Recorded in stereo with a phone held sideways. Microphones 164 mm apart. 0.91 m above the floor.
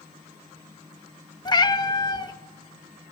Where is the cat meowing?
25° left (ahead or behind), 0.6 m.